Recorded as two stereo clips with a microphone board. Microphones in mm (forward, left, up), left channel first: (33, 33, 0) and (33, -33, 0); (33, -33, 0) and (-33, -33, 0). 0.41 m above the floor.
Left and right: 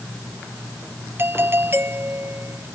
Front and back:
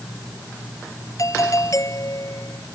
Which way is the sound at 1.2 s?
35° right.